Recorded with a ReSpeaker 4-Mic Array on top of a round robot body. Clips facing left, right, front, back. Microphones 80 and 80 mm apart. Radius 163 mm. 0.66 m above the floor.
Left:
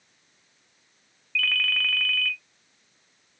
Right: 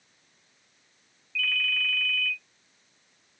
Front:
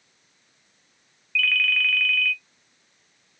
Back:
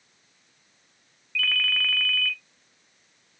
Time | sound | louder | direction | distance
1.4 | a ringtone | left 3 dB, front 3 dB | 120° left | 0.6 m